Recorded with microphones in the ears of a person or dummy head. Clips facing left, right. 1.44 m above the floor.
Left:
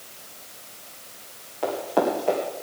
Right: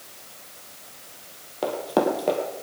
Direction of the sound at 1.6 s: 55° right (ahead or behind).